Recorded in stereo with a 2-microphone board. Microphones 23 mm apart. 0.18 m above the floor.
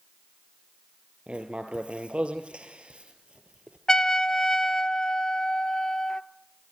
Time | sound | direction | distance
1.3 | writing | 65° right (ahead or behind) | 2.5 m
3.9 | a trumpet | 30° left (ahead or behind) | 0.8 m